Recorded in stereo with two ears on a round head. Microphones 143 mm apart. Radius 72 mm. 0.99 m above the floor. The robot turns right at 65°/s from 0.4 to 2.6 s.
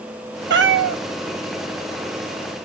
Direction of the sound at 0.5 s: 110° right.